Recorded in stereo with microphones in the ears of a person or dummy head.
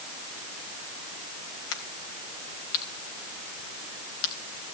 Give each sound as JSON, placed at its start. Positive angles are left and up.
{"t": 1.7, "sound": "a crack", "side_deg": 85, "distance_m": 3.5}